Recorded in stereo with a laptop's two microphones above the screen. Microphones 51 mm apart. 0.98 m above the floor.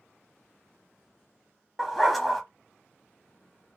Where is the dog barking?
Centre (ahead or behind), 0.7 m.